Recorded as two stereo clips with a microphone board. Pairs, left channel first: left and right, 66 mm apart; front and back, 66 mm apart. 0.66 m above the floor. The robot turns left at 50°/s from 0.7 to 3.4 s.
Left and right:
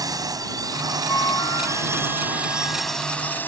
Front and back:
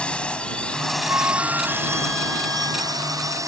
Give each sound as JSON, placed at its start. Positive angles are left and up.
{"t": 0.0, "sound": "a drone", "azimuth_deg": -75}
{"t": 1.1, "sound": "a flute", "azimuth_deg": 135}